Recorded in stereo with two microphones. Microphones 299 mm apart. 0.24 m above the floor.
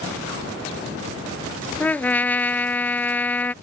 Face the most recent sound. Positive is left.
turn(degrees=5)  # may be behind; listen again after turning